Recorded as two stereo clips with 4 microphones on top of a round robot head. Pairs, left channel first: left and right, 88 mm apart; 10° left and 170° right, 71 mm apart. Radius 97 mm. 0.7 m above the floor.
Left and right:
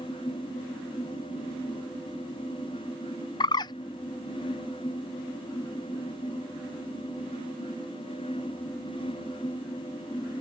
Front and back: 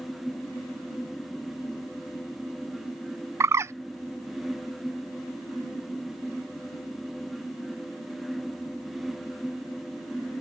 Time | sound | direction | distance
3.4 | a bird | 140° left | ?